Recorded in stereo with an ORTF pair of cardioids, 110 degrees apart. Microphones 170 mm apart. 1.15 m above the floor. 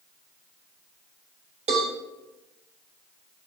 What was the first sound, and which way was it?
A cowbell, 40° right.